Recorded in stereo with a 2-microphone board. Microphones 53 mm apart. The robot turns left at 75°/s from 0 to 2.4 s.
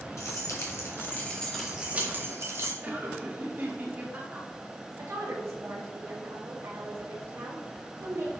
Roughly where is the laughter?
Right.